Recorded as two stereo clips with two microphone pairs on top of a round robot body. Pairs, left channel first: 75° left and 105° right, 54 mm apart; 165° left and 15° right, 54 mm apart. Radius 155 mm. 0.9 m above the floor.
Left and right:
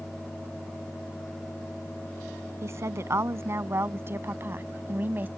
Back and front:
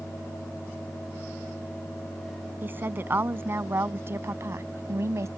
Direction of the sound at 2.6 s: 65° right.